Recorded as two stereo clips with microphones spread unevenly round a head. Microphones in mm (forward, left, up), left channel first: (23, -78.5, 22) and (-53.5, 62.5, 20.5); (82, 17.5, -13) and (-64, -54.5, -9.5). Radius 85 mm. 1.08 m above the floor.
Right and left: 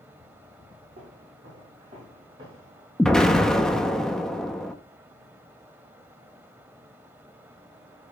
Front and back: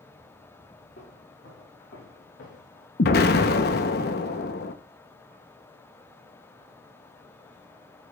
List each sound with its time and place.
1.0 s footsteps: 70° left, 6.5 m; by 2.9 s 55° left, 4.5 m
3.0 s an explosion: 25° left, 0.9 m